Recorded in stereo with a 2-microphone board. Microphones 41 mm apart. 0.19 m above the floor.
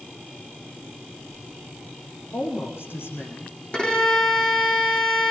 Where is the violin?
25° left (ahead or behind), 6.5 m.